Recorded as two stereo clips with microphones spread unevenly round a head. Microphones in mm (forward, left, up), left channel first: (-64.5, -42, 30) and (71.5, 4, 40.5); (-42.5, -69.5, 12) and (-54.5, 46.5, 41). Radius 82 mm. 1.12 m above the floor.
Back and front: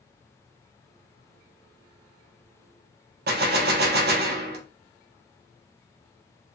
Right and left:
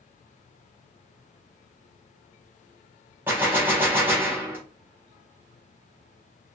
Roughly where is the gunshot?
Ahead.